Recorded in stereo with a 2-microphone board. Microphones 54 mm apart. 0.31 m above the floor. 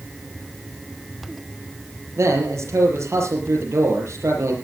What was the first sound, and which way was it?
A man speaking, 60° right (ahead or behind).